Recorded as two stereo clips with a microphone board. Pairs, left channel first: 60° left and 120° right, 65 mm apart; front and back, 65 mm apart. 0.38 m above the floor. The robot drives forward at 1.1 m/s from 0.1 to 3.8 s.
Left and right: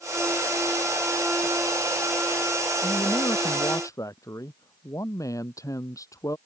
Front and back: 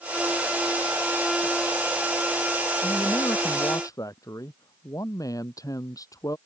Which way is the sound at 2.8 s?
25° left.